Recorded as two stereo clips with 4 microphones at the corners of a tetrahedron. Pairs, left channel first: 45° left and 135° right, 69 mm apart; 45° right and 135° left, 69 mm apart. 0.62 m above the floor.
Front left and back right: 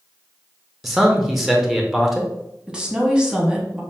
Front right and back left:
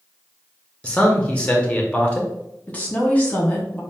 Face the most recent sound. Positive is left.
turn(degrees=-75)